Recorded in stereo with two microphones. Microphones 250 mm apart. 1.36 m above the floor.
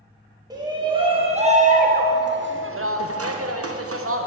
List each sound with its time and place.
0.5 s a shout: 15° right (ahead or behind), 1.8 m; by 4.3 s 65° right (ahead or behind), 1.2 m